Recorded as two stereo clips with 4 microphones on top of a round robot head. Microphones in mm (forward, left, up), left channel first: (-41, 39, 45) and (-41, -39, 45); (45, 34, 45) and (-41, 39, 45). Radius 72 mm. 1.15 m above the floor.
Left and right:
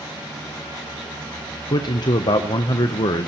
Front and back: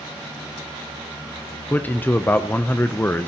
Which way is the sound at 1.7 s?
65° left.